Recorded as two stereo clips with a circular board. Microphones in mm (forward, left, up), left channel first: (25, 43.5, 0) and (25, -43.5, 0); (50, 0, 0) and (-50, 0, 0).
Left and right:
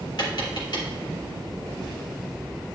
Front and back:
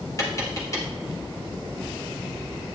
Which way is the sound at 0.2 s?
55° left.